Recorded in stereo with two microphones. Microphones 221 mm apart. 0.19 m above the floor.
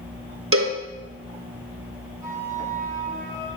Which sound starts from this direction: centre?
A flute, at 2.2 s.